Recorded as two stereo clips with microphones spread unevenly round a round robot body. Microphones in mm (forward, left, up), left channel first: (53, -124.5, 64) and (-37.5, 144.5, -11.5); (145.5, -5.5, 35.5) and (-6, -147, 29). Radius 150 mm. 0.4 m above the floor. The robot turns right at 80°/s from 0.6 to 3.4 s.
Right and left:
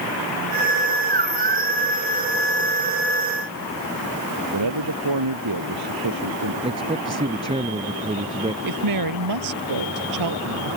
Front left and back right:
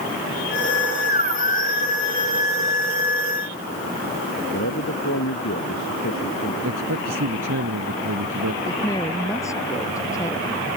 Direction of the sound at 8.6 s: 125° left.